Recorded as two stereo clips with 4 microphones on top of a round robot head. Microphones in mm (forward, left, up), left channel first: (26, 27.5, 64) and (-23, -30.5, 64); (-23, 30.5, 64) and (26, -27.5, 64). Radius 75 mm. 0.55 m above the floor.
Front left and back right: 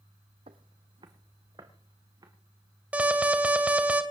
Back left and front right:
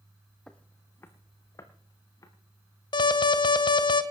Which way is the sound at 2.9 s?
155° left.